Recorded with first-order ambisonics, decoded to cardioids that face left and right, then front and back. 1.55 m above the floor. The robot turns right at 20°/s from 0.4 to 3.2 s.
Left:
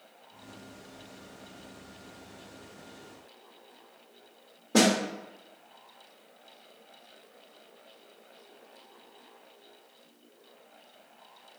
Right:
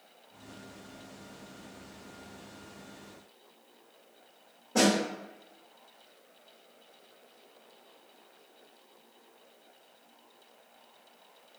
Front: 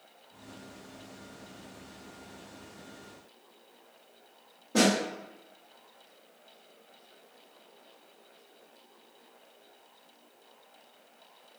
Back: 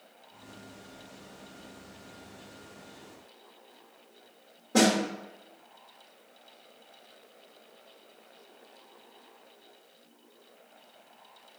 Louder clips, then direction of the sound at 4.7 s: Left 2 dB, back 1 dB; 100° left.